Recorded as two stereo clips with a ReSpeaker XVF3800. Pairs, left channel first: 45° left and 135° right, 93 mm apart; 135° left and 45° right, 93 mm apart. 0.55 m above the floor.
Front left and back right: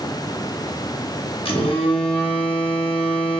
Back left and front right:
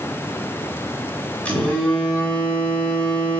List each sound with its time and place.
1.4 s a phone buzzing: 60° left, 1.0 m